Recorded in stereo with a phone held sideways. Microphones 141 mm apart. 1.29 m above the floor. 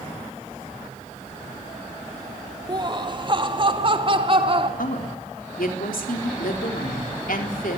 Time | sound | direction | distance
2.7 | laughter | 30° right (ahead or behind) | 1.3 m
4.8 | a woman speaking | 85° left | 4 m